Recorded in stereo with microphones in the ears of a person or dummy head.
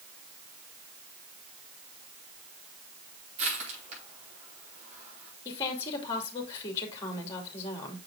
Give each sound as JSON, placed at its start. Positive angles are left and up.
{"t": 3.4, "sound": "crushing", "side_deg": -35, "distance_m": 5.0}
{"t": 5.5, "sound": "a woman speaking", "side_deg": 35, "distance_m": 2.5}